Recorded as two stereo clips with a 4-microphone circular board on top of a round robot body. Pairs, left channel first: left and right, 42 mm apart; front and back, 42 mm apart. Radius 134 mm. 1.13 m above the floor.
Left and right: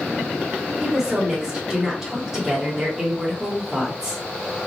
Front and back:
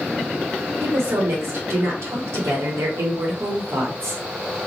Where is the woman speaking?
170° right, 1.0 m.